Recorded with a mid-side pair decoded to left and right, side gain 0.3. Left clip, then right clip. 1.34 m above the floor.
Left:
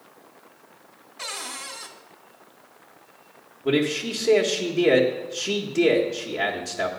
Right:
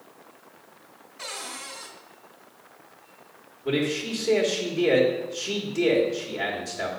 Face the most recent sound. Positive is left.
turn(degrees=60)